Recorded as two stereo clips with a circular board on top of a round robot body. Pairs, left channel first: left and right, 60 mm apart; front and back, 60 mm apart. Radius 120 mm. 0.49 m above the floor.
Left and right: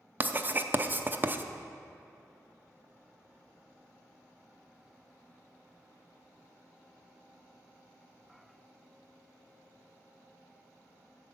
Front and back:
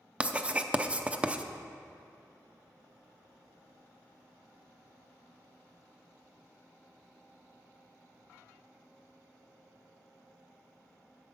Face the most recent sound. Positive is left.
turn(degrees=-125)